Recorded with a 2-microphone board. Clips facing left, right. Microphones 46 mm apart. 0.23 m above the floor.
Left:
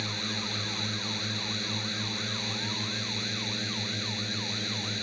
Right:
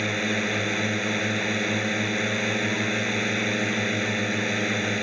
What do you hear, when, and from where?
0.0 s a drone: 50° right (ahead or behind)